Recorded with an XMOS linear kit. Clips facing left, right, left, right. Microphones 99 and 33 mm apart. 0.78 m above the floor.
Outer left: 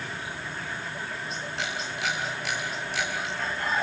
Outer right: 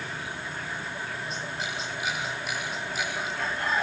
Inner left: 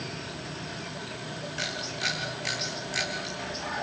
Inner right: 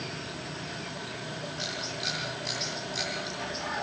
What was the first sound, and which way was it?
A camera shutter, 85° left.